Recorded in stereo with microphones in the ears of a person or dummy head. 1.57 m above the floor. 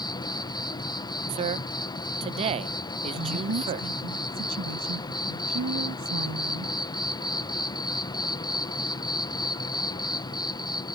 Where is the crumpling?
No crumpling in this recording.